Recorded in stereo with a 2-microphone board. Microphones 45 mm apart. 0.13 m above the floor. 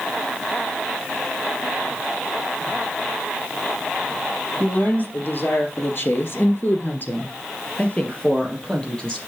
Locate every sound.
4.6 s a woman speaking: 45° left (ahead or behind), 3.5 m; by 9.2 s 15° left (ahead or behind), 4.5 m